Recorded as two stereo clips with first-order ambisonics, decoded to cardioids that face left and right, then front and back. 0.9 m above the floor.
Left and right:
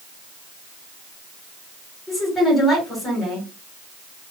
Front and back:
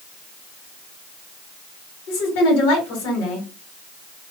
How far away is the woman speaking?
About 2 m.